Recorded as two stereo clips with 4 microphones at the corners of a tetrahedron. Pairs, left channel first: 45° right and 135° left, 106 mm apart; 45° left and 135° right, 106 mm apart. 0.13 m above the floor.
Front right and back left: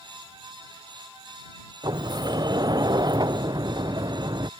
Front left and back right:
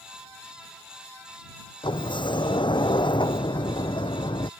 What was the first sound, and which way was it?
A sliding door, 85° left.